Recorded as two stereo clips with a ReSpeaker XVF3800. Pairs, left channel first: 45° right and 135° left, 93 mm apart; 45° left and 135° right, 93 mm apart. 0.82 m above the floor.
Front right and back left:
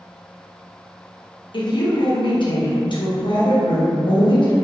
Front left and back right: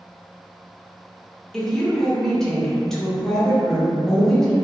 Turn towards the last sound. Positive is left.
turn(degrees=-40)